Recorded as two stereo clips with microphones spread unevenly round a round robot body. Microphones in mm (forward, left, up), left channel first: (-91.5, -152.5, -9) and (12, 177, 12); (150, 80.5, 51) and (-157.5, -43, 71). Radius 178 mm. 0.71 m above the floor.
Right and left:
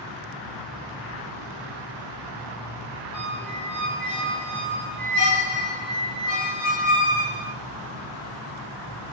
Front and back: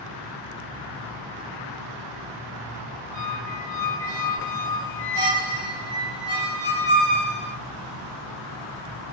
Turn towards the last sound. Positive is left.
turn(degrees=-85)